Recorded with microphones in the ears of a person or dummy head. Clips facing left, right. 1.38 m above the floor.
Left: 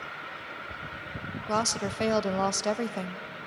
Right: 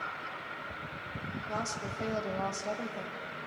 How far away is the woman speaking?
About 1.1 m.